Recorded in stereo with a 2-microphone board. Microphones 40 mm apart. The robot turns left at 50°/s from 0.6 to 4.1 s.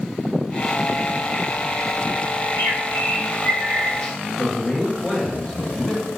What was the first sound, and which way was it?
A bird, 90° left.